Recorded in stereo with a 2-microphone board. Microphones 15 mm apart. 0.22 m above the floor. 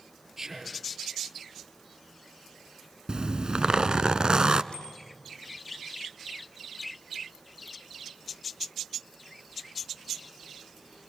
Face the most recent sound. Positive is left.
turn(degrees=80)